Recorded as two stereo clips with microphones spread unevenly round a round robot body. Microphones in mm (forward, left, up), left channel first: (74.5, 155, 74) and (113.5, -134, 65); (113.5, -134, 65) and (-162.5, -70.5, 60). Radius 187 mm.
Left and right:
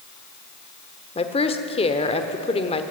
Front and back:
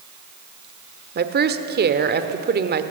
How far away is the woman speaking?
About 1.3 m.